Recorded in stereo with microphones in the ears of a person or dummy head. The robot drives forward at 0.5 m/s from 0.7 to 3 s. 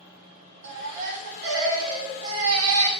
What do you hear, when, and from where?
0.6 s a baby crying: 65° right (ahead or behind), 2.5 m; by 2.9 s 75° right (ahead or behind), 2.5 m